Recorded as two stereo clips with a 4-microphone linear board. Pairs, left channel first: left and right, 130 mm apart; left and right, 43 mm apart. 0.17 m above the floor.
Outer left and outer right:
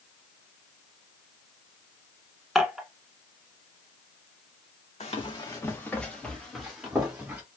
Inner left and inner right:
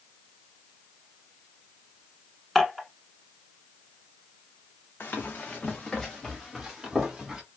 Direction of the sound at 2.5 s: Centre (ahead or behind).